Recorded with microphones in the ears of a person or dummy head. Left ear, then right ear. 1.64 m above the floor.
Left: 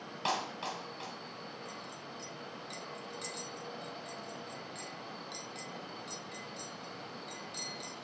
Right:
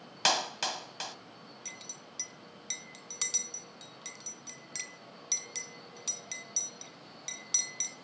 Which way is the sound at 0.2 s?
55° right (ahead or behind).